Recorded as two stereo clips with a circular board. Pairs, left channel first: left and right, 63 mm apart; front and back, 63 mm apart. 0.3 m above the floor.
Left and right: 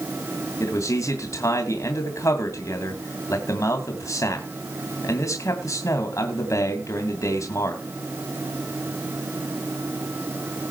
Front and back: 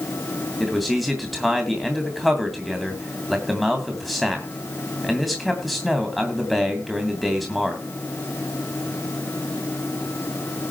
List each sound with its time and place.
0.6 s a man speaking: 90° left, 2.5 m